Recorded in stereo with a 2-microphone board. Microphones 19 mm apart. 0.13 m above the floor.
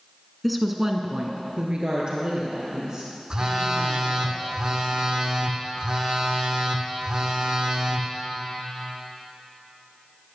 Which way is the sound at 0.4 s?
5° left (ahead or behind).